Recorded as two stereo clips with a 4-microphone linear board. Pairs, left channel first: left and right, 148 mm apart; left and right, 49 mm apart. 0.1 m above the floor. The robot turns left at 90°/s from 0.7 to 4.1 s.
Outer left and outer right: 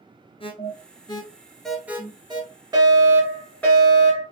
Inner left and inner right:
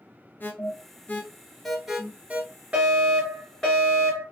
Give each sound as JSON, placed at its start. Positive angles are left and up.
{"t": 0.4, "sound": "an alarm", "side_deg": 40, "distance_m": 1.2}
{"t": 2.7, "sound": "a fire alarm", "side_deg": -25, "distance_m": 2.5}